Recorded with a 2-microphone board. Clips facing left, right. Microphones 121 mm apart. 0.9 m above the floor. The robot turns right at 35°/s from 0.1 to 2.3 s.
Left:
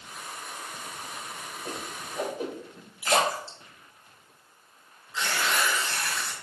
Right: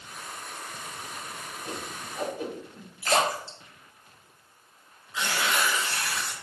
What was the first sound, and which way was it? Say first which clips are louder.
A whoosh: even; 45° left (ahead or behind).